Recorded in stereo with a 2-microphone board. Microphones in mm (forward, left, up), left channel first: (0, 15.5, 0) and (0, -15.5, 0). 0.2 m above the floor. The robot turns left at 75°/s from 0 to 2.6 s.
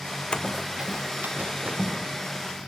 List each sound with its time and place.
0.3 s running footsteps: 35° left (ahead or behind), 0.8 m; by 1.9 s 45° right (ahead or behind), 2.5 m